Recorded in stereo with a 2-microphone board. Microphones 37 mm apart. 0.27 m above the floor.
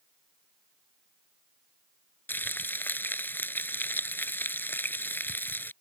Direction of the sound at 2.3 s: 70° left (ahead or behind).